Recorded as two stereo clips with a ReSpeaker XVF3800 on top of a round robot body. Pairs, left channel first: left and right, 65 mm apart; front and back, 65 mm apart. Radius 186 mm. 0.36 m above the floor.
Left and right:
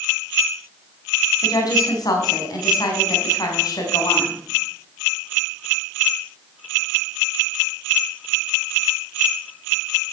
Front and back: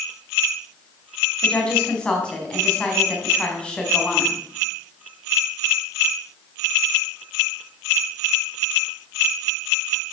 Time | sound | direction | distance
1.4 | a woman speaking | 75° left | 4 m